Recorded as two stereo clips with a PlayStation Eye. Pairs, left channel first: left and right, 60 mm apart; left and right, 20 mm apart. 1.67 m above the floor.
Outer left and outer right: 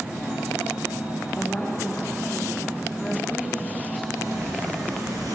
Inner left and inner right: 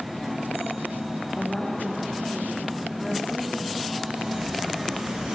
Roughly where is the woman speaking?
Centre.